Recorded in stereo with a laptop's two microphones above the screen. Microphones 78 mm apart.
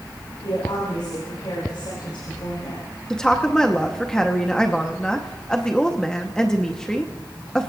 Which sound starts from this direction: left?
A woman speaking, at 0.4 s.